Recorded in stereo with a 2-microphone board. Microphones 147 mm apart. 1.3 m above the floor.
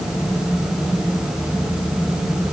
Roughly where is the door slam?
No door slam in this recording.